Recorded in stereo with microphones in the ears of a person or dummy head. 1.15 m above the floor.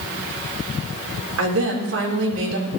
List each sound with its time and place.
1.4 s a woman speaking: 80° right, 4 m